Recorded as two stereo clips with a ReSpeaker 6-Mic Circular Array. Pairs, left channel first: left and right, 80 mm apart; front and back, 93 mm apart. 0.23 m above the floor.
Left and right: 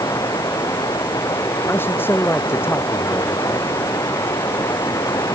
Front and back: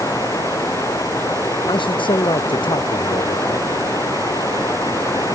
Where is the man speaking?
25° left.